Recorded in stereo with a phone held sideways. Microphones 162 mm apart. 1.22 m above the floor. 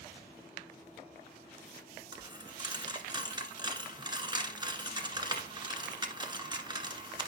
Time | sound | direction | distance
2.1 | a dropped coin | 25° right (ahead or behind) | 1.3 m